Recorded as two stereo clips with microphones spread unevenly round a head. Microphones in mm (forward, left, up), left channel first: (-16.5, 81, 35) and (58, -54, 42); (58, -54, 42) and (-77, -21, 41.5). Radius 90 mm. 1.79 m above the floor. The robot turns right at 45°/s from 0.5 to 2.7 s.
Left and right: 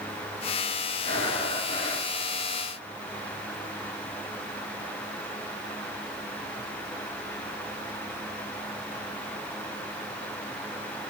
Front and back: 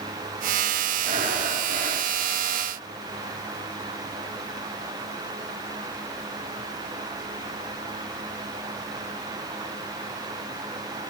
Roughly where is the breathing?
Behind left.